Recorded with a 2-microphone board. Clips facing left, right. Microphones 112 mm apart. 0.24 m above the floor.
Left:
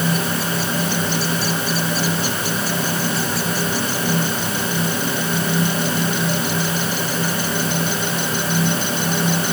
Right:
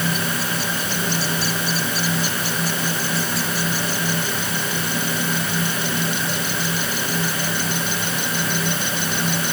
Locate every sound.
Only background noise.